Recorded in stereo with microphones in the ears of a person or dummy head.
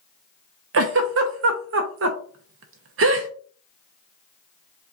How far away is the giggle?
About 0.8 m.